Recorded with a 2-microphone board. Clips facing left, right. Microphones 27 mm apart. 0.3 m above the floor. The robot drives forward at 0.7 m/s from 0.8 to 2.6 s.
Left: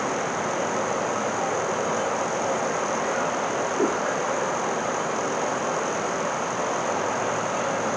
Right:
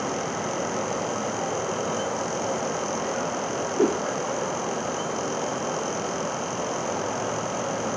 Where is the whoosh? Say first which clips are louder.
Right 3 dB; 90° right.